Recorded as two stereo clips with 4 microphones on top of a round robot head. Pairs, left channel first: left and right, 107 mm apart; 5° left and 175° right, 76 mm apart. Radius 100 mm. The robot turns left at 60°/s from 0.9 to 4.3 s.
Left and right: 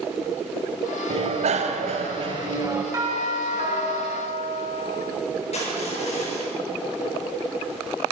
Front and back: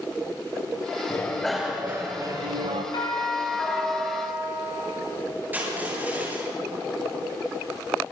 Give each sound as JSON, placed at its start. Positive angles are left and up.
{"t": 1.1, "sound": "a bicycle bell", "azimuth_deg": -60, "distance_m": 2.0}
{"t": 2.9, "sound": "a doorbell", "azimuth_deg": -30, "distance_m": 6.5}
{"t": 5.5, "sound": "crushing", "azimuth_deg": 120, "distance_m": 8.5}